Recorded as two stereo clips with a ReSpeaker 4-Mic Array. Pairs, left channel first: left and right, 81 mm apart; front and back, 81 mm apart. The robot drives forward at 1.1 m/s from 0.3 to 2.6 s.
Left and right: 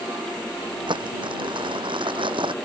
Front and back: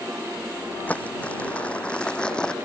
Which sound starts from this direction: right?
Crumpling, at 0.9 s.